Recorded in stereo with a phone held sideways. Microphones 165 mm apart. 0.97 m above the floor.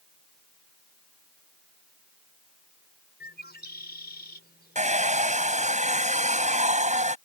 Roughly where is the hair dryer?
Right.